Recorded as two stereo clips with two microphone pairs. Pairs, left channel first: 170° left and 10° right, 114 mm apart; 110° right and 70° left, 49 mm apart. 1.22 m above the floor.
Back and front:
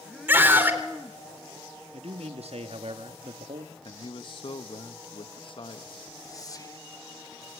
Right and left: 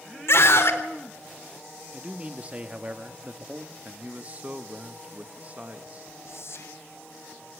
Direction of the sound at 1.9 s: 10° left.